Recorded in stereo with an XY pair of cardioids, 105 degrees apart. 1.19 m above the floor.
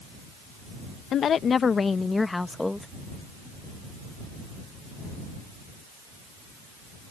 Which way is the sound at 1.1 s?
60° left.